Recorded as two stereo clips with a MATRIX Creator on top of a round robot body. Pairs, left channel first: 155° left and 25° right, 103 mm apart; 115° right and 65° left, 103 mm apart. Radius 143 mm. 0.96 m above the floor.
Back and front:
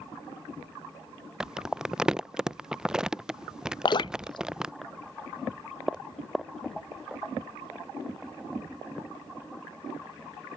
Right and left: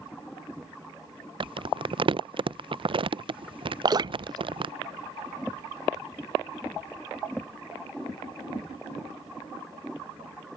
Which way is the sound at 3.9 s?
115° left.